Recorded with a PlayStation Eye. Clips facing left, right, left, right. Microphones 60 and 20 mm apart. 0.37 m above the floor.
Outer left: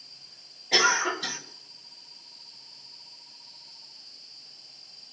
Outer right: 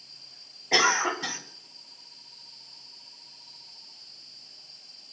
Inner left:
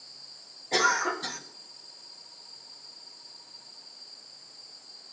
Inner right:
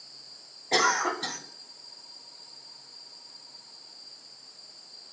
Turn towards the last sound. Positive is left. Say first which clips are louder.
# even, inner right 1 dB
turn(degrees=-30)  # may be behind; listen again after turning